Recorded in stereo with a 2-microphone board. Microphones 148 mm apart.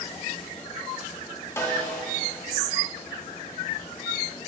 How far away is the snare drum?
About 0.9 m.